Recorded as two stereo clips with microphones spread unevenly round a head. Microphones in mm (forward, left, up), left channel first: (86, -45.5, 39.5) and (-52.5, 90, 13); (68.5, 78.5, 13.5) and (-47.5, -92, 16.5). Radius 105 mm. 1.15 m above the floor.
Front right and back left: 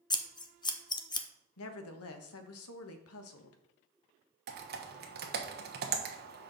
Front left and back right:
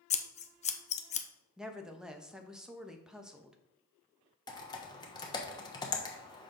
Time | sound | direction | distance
0.1 | scissors | 20° left | 0.7 m
1.6 | a woman speaking | 35° right | 1.0 m
4.5 | typing on a keyboard | 125° left | 1.1 m